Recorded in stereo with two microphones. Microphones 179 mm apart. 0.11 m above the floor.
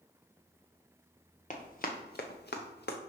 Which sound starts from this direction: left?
Running footsteps, at 1.5 s.